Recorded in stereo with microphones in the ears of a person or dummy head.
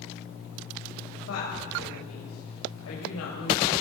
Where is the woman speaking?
85° left, 7 m; by 3.7 s 75° left (ahead or behind), 7 m.